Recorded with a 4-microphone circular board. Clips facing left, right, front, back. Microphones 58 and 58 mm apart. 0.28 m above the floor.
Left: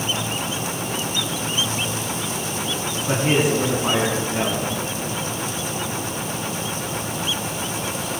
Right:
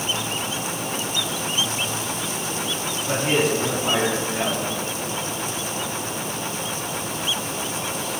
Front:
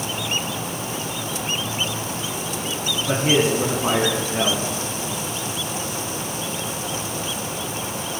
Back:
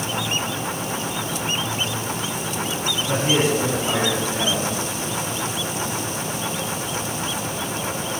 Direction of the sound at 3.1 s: 30° left.